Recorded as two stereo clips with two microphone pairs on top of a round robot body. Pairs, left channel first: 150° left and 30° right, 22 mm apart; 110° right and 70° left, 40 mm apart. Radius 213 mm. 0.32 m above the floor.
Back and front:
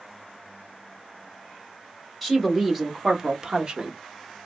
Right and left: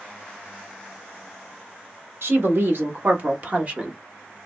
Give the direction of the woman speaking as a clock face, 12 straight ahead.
10 o'clock.